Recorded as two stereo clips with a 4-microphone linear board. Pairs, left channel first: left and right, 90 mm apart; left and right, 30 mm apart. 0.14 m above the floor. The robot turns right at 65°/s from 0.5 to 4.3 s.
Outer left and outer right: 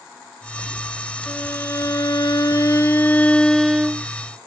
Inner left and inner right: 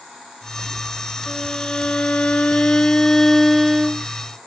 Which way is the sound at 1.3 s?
25° left.